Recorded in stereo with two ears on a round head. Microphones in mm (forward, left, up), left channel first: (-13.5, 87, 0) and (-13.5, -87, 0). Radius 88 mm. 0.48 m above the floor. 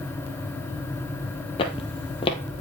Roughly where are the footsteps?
Left.